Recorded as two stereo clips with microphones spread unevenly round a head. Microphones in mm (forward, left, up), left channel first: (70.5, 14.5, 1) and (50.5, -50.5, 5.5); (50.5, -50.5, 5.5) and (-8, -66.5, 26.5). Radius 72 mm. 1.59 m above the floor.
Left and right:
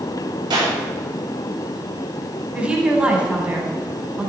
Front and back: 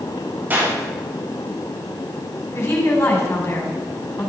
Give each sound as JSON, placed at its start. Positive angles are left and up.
{"t": 0.5, "sound": "a clap", "azimuth_deg": -110, "distance_m": 5.0}
{"t": 2.5, "sound": "a woman speaking", "azimuth_deg": -35, "distance_m": 5.5}